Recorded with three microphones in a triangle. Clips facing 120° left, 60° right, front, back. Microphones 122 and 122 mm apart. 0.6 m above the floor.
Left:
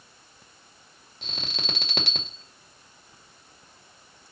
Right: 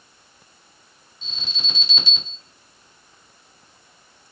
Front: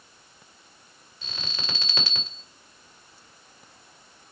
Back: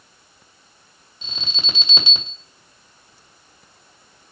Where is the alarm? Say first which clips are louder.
Left 4 dB, back 3 dB; 115° left, 2 m.